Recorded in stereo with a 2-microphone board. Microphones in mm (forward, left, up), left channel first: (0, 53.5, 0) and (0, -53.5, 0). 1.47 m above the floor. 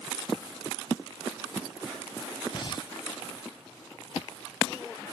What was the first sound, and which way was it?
Breathing, 45° left (ahead or behind).